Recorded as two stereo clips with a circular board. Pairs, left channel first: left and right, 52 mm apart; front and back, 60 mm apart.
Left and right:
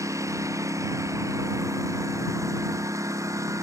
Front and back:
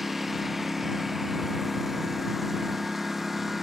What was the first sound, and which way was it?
A lawn mower, 90° right.